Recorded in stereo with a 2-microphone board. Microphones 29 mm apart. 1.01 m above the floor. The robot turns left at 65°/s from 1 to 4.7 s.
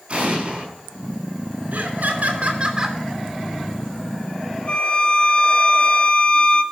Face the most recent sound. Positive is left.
turn(degrees=40)  # may be behind; listen again after turning